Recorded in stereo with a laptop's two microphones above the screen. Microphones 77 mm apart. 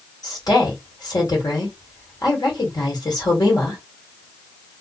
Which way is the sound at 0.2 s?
65° left (ahead or behind).